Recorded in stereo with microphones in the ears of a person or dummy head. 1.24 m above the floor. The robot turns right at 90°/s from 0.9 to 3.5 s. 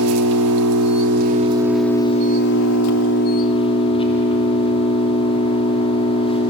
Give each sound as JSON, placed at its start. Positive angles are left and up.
{"t": 0.0, "sound": "an engine running", "azimuth_deg": -80, "distance_m": 3.0}